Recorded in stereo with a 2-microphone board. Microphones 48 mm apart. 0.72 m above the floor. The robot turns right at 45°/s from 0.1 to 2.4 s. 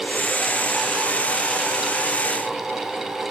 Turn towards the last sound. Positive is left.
No sound to turn to.